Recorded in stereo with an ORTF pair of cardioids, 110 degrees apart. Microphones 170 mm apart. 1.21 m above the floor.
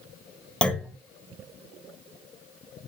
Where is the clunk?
5° left, 1.3 m.